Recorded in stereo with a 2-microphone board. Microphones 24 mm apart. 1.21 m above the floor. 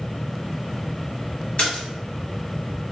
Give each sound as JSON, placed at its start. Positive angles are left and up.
{"t": 1.6, "sound": "a splash", "side_deg": 50, "distance_m": 1.7}